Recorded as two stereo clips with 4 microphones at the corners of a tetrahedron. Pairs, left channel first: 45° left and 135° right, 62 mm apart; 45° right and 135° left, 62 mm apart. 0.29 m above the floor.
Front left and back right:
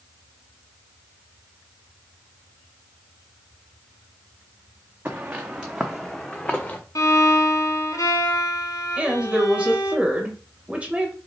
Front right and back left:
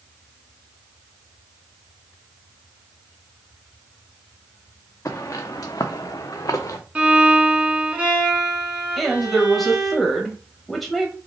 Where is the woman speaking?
130° right, 0.9 m.